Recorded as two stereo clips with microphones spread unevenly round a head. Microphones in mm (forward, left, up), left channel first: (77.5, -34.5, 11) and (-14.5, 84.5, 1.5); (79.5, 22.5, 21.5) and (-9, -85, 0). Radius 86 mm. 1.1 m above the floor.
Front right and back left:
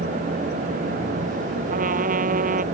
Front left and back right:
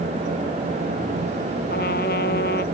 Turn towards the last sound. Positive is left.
turn(degrees=95)